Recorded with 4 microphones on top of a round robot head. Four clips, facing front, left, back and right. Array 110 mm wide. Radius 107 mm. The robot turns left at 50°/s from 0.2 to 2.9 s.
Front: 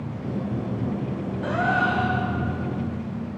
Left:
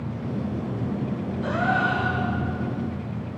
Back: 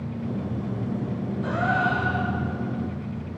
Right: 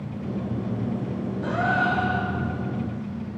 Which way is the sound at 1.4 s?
25° right.